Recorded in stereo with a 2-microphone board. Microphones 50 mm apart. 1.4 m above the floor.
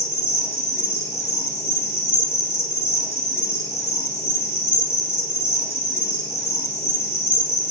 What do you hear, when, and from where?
0.0 s an insect: 55° left (ahead or behind), 0.7 m